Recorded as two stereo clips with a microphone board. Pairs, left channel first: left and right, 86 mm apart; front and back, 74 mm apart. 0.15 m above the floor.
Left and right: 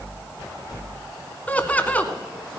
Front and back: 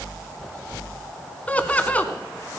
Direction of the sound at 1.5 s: 40° left.